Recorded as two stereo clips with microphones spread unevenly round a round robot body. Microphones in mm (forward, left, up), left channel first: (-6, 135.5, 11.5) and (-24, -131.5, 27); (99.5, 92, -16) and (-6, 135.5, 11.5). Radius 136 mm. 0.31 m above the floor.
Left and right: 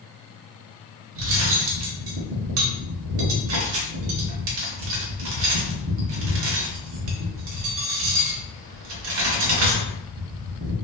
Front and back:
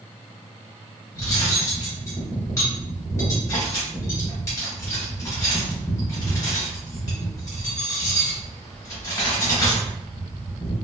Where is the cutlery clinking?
70° right, 0.6 m.